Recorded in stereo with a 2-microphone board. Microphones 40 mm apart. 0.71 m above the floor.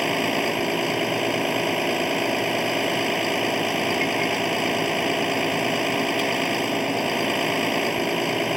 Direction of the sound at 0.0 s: 5° right (ahead or behind).